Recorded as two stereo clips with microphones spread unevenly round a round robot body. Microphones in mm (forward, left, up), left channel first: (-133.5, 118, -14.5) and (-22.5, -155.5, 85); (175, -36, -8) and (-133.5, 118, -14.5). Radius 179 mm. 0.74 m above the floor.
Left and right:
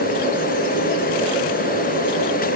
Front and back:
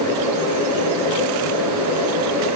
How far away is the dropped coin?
No dropped coin in this recording.